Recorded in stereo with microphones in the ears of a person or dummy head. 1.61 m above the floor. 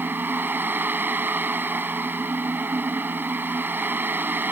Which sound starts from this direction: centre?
A fan, at 0.0 s.